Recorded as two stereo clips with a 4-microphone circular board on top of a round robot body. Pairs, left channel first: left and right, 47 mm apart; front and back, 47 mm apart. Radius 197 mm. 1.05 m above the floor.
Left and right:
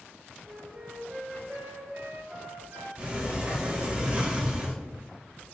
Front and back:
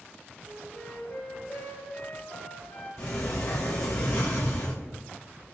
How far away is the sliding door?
About 1.8 m.